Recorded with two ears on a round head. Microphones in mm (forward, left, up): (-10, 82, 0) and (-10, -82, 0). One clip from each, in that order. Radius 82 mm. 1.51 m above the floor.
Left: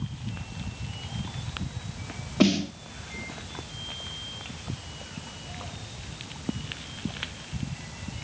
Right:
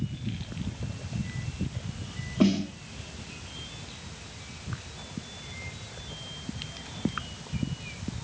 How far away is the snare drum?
About 0.7 m.